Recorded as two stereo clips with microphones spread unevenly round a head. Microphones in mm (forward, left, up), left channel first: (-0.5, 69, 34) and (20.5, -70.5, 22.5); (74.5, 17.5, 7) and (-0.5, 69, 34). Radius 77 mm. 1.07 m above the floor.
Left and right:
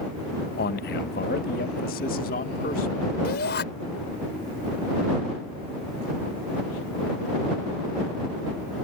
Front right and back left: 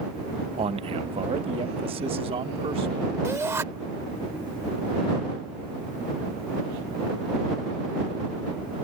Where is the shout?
85° left.